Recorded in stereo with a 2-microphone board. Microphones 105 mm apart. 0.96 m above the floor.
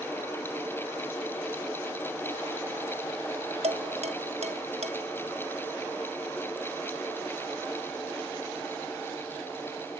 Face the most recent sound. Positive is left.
turn(degrees=-85)